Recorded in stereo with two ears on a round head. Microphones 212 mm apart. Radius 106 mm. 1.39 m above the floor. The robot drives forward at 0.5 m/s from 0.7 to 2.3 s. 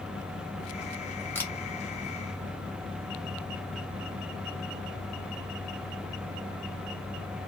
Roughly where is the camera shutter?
Centre.